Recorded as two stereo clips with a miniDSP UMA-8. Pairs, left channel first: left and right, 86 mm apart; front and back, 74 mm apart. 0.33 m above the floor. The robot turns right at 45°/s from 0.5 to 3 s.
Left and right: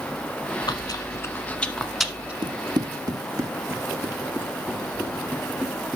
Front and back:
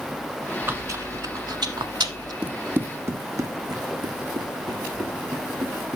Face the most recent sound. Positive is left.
turn(degrees=-170)